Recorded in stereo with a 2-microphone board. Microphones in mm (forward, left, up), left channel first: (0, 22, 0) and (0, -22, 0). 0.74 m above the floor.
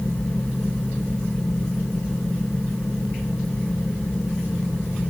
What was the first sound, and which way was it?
Only background noise.